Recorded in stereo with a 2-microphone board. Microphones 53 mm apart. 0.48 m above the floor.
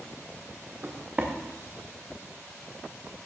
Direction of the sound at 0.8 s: 35° right (ahead or behind).